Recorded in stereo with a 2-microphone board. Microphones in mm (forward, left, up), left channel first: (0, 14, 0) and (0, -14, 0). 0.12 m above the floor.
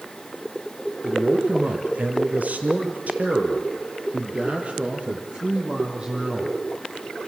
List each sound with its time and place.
1.0 s a man speaking: 45° right (ahead or behind), 3.5 m; by 6.6 s 35° right (ahead or behind), 4.5 m